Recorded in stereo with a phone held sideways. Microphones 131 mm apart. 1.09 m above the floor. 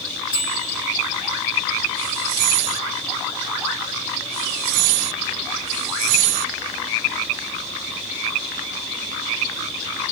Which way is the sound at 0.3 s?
35° left (ahead or behind).